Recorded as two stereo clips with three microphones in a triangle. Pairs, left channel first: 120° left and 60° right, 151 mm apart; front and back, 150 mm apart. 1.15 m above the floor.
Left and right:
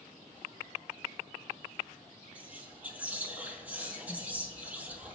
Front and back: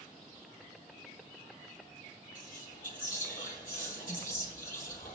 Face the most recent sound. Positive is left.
turn(degrees=20)